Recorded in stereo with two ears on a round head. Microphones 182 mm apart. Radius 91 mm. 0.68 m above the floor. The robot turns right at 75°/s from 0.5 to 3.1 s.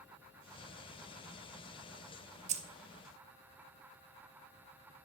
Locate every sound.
2.5 s keys jangling: 35° right (ahead or behind), 0.7 m; by 2.6 s 30° right (ahead or behind), 0.7 m